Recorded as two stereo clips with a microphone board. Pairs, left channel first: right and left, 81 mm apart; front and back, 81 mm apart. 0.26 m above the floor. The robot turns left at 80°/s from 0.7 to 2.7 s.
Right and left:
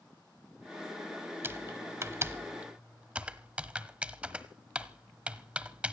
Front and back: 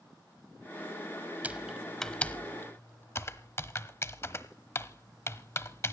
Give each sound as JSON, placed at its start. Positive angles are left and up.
{"t": 1.4, "sound": "typing on a keyboard", "azimuth_deg": 125, "distance_m": 1.0}